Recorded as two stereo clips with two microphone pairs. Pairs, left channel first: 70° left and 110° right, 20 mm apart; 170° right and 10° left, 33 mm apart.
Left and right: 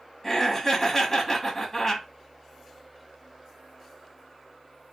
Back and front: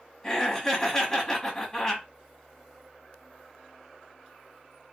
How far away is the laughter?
About 1.1 m.